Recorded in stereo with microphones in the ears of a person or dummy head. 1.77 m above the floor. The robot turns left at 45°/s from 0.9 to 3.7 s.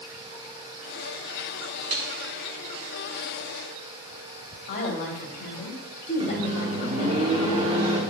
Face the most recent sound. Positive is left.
turn(degrees=-30)  # may be behind; listen again after turning